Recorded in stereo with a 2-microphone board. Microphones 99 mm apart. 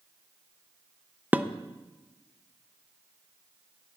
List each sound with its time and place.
1.3 s dishes clattering: 15° right (ahead or behind), 0.5 m